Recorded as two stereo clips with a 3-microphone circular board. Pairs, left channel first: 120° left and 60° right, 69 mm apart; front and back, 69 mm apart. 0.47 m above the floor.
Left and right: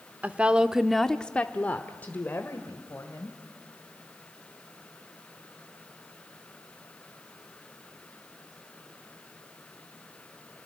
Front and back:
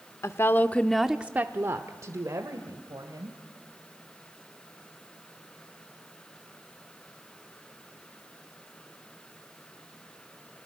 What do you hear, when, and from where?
0.2 s a woman speaking: straight ahead, 0.9 m; by 3.4 s 175° left, 2 m